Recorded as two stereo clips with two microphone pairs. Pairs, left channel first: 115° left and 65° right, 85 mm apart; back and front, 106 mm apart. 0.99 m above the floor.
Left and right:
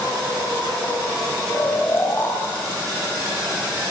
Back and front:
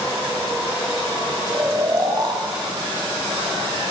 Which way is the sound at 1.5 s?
50° left.